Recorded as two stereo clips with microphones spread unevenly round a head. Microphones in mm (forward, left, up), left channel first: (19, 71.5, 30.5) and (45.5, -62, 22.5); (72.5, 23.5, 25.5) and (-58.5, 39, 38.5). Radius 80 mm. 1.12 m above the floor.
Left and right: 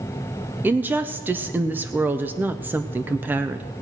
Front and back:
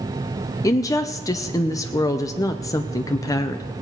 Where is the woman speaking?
20° right, 0.7 m.